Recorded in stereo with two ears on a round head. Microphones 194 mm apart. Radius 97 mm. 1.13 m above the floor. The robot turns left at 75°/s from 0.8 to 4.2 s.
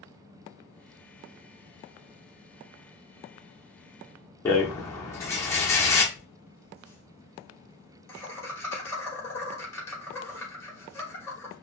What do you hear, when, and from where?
4.5 s a rattle: 15° left (ahead or behind), 1.2 m
6.2 s laughter: 10° left (ahead or behind), 3 m